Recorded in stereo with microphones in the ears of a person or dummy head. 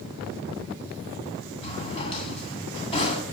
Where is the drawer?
30° left (ahead or behind), 2.5 m.